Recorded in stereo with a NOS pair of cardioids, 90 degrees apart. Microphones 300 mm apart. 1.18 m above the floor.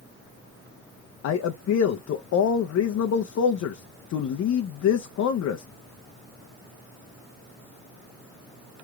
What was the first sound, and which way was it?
A man speaking, 55° left.